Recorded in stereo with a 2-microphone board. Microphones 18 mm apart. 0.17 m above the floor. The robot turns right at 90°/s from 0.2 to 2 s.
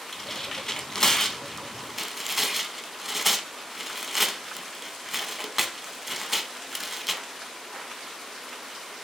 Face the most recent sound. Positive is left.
turn(degrees=-10)  # may be behind; listen again after turning